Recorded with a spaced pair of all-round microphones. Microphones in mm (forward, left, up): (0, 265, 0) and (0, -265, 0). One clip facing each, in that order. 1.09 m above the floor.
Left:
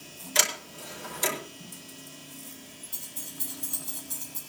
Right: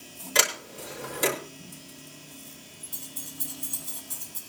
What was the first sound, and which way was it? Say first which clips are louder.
A sliding door: right 4 dB; 70° right (ahead or behind).